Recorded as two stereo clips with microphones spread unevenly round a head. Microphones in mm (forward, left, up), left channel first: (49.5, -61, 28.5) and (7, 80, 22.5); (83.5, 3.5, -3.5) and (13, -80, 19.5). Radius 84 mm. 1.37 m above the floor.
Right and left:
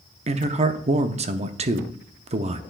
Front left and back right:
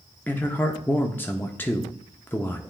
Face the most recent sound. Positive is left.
turn(degrees=105)